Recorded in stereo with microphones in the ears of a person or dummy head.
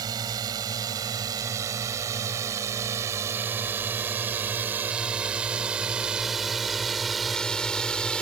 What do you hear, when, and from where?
0.0 s a drone: 25° right (ahead or behind); by 8.2 s 5° left (ahead or behind)